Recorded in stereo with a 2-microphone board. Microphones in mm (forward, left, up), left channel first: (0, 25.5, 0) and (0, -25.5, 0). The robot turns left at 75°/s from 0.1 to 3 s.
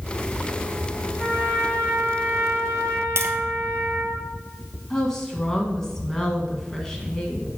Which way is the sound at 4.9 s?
10° left (ahead or behind).